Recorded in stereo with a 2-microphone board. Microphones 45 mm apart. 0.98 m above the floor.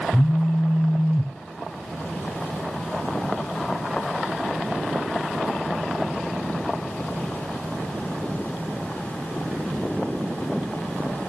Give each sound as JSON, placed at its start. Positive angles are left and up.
{"t": 0.1, "sound": "a phone buzzing", "side_deg": 45, "distance_m": 0.6}